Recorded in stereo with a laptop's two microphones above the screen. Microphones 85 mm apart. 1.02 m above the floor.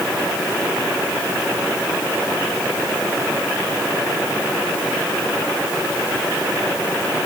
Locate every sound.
Only background noise.